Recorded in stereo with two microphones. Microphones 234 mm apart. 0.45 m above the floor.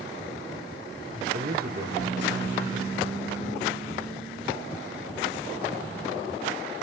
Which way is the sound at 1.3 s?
35° right (ahead or behind).